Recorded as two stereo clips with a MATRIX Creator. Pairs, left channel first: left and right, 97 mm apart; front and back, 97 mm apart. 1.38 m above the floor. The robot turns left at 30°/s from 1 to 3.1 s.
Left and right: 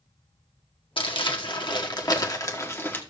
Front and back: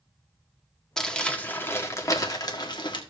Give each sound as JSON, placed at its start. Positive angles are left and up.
{"t": 1.0, "sound": "crumpling", "azimuth_deg": 85, "distance_m": 1.3}